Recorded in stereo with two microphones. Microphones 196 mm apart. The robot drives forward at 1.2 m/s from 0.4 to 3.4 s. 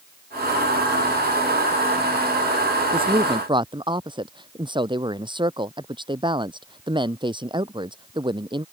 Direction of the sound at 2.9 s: 25° right (ahead or behind).